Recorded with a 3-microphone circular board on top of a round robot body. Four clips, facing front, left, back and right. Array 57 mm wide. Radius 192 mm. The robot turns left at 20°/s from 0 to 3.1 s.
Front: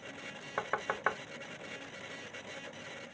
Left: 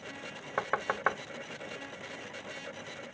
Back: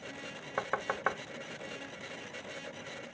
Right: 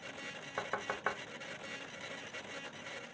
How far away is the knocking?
About 0.6 m.